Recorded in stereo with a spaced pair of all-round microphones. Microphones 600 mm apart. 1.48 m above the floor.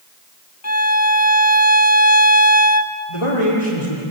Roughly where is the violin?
Left.